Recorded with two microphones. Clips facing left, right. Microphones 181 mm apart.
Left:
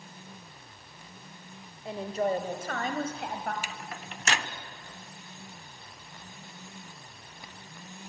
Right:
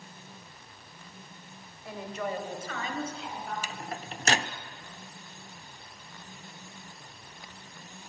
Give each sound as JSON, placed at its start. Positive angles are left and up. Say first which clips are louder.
{"t": 1.9, "sound": "a woman speaking", "louder": "left 6 dB", "side_deg": 25, "distance_m": 2.5}
{"t": 3.6, "sound": "a microwave", "louder": "right 3 dB", "side_deg": -40, "distance_m": 0.9}